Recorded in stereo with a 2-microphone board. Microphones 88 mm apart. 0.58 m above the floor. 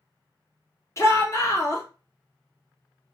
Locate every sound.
1.0 s a shout: 35° left (ahead or behind), 1.0 m